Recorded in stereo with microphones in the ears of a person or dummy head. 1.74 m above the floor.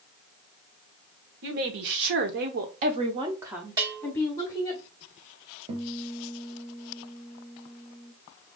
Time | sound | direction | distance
1.4 | a woman speaking | 65° right (ahead or behind) | 1.2 m
3.8 | a bell | 20° right (ahead or behind) | 1.2 m
5.7 | a guitar | 35° right (ahead or behind) | 1.0 m